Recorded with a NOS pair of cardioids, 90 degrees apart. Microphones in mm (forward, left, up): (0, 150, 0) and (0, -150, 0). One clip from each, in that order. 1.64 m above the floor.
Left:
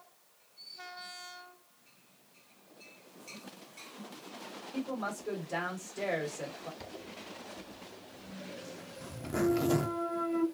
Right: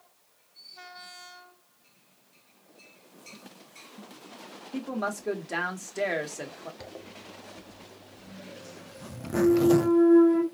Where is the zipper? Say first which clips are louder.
Right 2 dB; 15° right, 0.5 m.